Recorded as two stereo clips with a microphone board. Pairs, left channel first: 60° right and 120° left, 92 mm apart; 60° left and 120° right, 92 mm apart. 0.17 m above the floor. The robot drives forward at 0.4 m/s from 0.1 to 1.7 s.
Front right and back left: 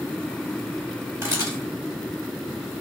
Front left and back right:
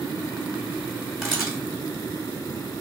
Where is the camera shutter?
155° left, 2 m; by 1.6 s 160° left, 2 m.